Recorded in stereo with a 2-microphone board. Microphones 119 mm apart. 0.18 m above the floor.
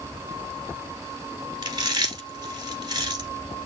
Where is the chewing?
35° right (ahead or behind), 1.3 m.